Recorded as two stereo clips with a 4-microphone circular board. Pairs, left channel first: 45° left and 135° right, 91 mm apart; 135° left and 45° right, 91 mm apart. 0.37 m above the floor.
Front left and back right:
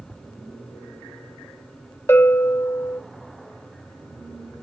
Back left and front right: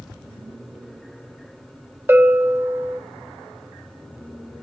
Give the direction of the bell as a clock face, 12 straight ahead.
12 o'clock.